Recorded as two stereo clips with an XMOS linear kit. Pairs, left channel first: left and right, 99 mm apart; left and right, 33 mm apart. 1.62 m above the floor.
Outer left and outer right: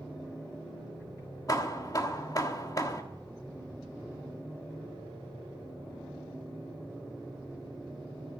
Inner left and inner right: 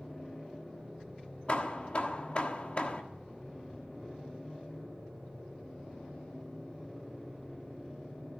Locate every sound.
1.5 s hammering: 40° left (ahead or behind), 1.3 m